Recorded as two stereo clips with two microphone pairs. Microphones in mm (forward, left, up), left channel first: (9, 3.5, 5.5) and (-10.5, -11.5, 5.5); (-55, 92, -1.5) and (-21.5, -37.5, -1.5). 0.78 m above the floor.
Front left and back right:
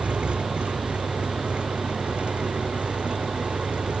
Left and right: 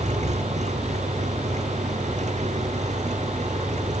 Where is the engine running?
105° right.